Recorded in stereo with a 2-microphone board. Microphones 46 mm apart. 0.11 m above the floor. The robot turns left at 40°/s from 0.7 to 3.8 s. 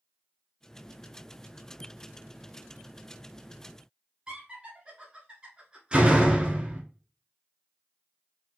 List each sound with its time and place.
4.3 s laughter: 20° right (ahead or behind), 1.1 m
5.9 s a door slam: 20° right (ahead or behind), 0.8 m